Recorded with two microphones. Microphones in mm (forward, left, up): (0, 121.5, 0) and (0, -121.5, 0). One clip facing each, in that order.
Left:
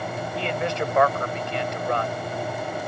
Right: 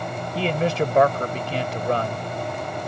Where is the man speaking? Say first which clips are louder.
Right 5 dB; 35° right (ahead or behind).